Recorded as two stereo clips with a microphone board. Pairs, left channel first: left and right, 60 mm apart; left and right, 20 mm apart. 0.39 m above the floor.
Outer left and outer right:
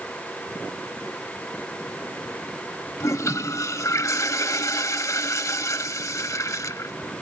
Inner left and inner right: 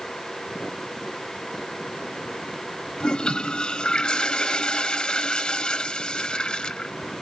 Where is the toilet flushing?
65° left (ahead or behind), 0.9 m.